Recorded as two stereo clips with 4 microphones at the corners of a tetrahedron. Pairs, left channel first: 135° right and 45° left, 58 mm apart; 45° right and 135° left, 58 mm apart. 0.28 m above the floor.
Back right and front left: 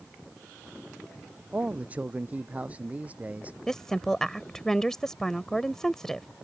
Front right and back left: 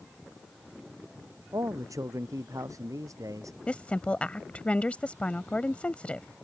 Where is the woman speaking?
65° right.